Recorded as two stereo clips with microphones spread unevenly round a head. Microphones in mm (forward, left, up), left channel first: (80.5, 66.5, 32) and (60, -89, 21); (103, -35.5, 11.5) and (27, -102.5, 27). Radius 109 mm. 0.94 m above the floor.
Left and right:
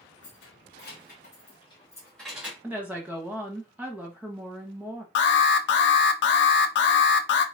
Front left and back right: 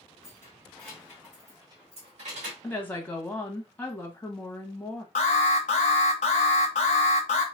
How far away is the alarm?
About 0.6 m.